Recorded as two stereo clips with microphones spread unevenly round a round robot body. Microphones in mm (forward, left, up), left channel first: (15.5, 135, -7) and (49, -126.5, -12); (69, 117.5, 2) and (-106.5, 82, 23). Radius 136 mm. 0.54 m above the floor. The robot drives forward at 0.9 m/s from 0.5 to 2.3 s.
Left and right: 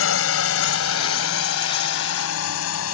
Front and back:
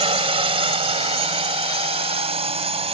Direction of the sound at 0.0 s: 135° left.